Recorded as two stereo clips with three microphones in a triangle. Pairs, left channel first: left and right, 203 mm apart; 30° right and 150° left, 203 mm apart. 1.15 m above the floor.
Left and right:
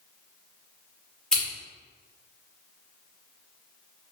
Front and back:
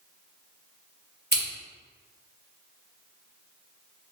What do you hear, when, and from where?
1.3 s scissors: 175° left, 1.6 m